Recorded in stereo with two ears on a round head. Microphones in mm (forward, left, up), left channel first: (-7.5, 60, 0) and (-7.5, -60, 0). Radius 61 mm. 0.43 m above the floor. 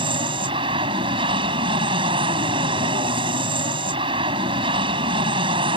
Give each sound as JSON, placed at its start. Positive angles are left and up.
{"t": 0.0, "sound": "an aircraft", "side_deg": -40}